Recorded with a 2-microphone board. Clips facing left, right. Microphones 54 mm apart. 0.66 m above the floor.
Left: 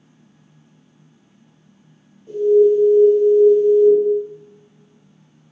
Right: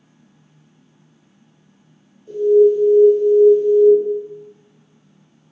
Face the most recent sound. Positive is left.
turn(degrees=30)  # may be behind; listen again after turning